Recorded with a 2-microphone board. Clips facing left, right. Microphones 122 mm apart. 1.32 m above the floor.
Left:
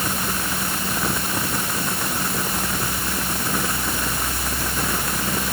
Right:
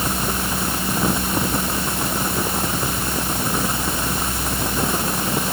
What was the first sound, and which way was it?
Only background noise.